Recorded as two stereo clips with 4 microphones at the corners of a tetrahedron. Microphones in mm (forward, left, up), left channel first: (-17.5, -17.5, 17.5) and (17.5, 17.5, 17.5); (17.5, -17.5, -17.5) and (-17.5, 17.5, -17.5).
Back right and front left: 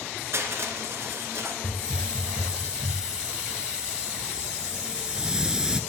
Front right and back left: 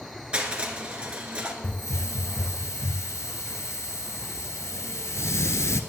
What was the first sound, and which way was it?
Crushing, 65° left.